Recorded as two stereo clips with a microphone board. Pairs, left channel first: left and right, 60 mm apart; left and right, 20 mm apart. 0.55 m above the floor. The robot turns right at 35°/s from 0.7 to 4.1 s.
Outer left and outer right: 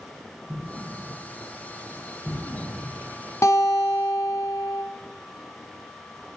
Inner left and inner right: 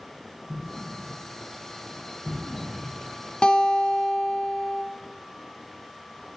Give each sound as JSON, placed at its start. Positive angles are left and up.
{"t": 0.5, "sound": "an explosion", "side_deg": -40, "distance_m": 3.0}
{"t": 3.4, "sound": "a guitar", "side_deg": 55, "distance_m": 1.1}